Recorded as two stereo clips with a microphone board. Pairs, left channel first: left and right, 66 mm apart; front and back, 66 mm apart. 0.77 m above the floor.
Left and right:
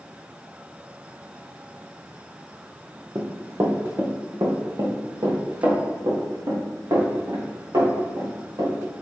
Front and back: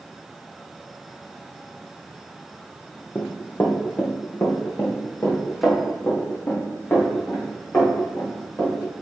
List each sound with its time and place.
3.1 s running footsteps: 55° right, 1.4 m; by 8.7 s 65° right, 5.5 m